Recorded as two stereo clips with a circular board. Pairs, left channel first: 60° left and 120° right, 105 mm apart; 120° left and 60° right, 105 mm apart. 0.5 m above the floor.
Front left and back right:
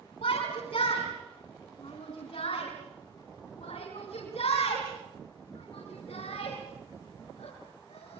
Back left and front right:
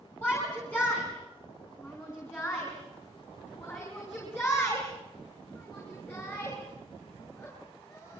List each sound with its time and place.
0.2 s a shout: 45° left, 5.5 m; by 8.2 s 55° left, 9 m